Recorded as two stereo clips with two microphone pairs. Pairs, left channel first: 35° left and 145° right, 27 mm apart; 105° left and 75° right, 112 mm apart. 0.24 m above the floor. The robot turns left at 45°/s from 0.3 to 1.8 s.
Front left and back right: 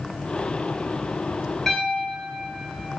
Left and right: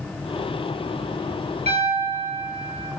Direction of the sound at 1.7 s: 55° right.